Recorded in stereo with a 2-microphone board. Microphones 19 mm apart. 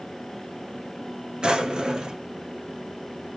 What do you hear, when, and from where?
1.4 s a drawer: 45° right (ahead or behind), 1.7 m